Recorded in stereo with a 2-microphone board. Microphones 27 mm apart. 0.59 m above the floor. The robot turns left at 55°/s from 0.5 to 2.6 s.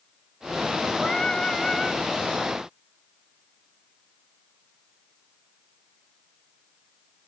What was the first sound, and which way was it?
Singing, 20° left (ahead or behind).